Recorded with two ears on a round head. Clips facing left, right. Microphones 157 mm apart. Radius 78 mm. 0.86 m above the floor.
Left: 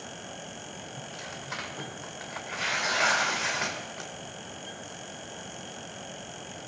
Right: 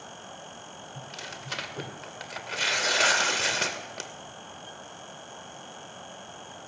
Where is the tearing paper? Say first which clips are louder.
Left 1 dB; 40° right (ahead or behind), 2.5 m.